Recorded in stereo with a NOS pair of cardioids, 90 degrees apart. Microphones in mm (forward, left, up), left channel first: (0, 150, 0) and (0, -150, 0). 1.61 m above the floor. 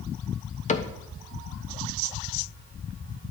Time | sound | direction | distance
0.7 | a cupboard door | 25° left | 0.9 m